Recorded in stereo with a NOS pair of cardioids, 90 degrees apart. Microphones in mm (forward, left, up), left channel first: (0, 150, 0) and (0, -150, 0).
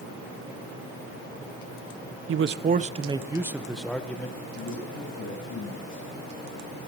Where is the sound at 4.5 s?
40° left, 9 m.